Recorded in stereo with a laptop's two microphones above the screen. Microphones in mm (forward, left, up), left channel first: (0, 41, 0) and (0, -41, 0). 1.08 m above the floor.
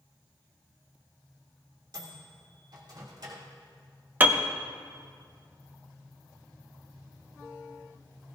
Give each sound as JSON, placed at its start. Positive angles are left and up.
{"t": 1.9, "sound": "a microwave", "side_deg": -55, "distance_m": 3.0}
{"t": 4.2, "sound": "a piano", "side_deg": -20, "distance_m": 1.0}